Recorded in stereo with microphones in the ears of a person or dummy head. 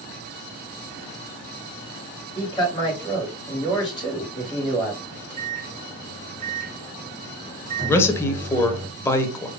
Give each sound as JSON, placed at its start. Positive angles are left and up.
{"t": 2.4, "sound": "a man speaking", "side_deg": 25, "distance_m": 3.0}
{"t": 5.0, "sound": "a microwave", "side_deg": -40, "distance_m": 1.6}
{"t": 7.9, "sound": "a man speaking", "side_deg": 15, "distance_m": 0.9}